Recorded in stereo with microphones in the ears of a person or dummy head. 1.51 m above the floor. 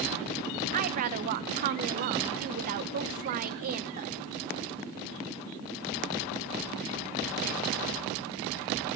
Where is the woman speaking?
45° right (ahead or behind), 1.1 m.